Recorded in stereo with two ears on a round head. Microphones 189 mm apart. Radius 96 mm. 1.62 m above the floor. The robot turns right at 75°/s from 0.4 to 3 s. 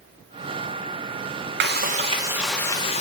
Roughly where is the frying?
Ahead right.